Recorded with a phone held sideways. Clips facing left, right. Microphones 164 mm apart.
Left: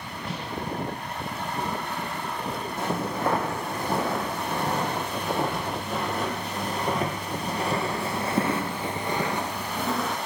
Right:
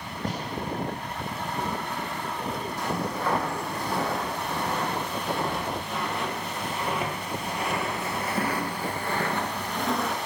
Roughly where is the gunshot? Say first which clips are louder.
Right 2 dB; right.